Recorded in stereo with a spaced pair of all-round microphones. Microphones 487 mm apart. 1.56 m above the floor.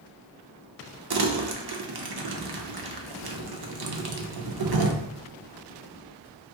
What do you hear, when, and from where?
1.1 s crumpling: 50° right (ahead or behind), 0.5 m